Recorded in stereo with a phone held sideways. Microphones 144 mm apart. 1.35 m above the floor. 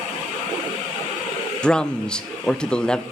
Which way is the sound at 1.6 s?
5° left (ahead or behind).